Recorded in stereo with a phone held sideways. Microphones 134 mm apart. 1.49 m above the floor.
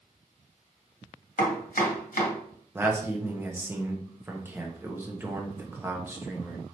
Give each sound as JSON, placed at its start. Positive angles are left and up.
{"t": 1.4, "sound": "chopping", "side_deg": 70, "distance_m": 1.1}
{"t": 2.8, "sound": "a man speaking", "side_deg": -15, "distance_m": 0.9}